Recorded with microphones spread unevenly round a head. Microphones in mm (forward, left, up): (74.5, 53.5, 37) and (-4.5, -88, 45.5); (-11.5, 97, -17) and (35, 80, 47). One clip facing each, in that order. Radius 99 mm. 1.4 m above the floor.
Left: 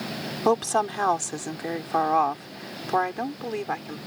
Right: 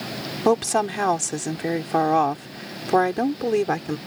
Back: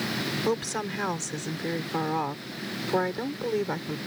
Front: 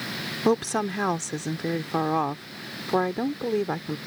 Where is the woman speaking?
45° right; by 4.0 s 80° right.